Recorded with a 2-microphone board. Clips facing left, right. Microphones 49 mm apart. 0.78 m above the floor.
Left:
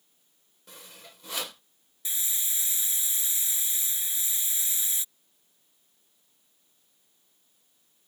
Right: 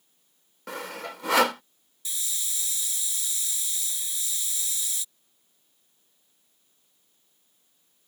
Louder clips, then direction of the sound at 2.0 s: Even; 25° left (ahead or behind).